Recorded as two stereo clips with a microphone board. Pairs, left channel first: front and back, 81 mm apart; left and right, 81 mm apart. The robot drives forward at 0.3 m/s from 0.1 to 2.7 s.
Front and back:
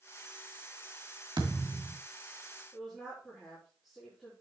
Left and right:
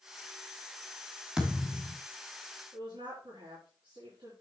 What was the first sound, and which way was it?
A thud, 170° right.